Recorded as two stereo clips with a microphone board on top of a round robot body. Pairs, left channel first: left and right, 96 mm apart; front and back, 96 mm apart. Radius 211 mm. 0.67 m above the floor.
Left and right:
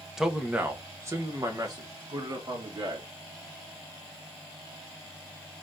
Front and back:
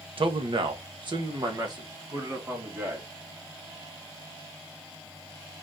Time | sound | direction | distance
0.2 | a man speaking | 175° right | 1.2 m